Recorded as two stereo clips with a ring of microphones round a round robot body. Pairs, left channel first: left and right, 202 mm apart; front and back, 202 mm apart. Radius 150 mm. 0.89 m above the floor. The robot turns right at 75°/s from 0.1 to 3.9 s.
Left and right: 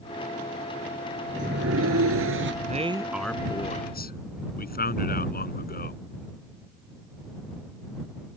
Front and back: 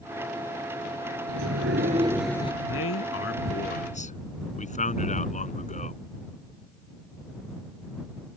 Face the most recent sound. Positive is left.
turn(degrees=50)